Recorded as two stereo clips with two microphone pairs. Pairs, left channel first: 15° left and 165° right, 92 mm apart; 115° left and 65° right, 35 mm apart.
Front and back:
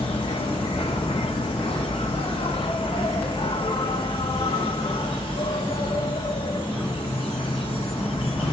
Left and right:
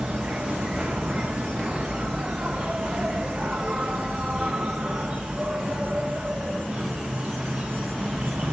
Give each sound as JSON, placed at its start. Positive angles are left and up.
{"t": 0.0, "sound": "an insect", "azimuth_deg": 5, "distance_m": 1.1}